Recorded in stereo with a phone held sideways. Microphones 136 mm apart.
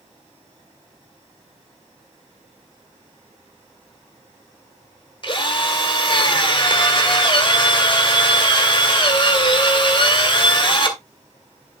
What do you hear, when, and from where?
5.2 s a drill: 40° left (ahead or behind), 2 m